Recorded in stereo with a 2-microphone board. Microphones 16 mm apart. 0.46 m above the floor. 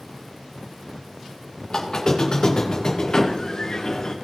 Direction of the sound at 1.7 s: 45° left (ahead or behind).